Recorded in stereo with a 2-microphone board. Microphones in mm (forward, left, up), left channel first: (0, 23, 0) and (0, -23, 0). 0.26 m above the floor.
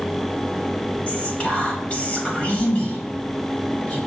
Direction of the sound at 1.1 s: 25° left (ahead or behind).